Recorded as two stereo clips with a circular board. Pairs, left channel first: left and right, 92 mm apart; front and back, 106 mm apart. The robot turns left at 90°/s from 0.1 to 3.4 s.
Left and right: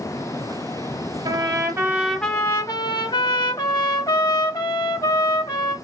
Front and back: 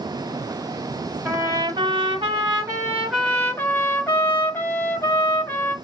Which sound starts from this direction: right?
A trumpet, at 1.2 s.